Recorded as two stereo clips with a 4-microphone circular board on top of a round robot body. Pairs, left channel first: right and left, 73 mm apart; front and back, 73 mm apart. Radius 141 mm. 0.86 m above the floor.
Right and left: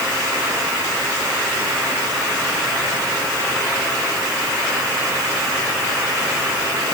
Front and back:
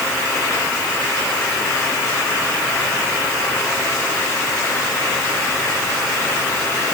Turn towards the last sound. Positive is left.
No sound to turn to.